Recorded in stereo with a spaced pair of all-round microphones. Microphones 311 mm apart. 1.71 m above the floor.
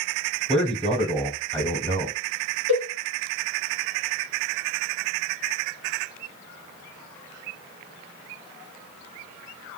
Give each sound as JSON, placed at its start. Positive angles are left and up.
{"t": 0.5, "sound": "a man speaking", "side_deg": 5, "distance_m": 1.1}
{"t": 2.7, "sound": "a cowbell", "side_deg": 40, "distance_m": 3.0}